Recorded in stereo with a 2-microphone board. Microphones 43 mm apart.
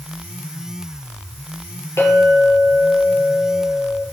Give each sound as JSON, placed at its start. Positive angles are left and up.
{"t": 2.0, "sound": "a clink", "side_deg": 85, "distance_m": 6.0}